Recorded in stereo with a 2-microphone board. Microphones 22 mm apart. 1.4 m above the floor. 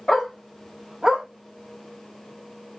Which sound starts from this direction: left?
A dog barking, at 0.1 s.